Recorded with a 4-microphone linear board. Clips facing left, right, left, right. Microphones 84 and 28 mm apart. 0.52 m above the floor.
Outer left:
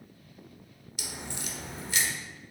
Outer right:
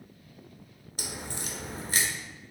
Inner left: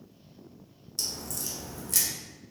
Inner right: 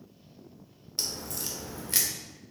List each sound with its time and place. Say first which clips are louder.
1.0 s a crack: outer right 2 dB, inner right 1 dB; 40° right (ahead or behind), 0.6 m